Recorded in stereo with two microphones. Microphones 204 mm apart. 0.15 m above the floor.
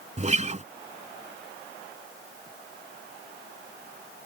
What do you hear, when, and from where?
0.2 s a guitar: 35° right (ahead or behind)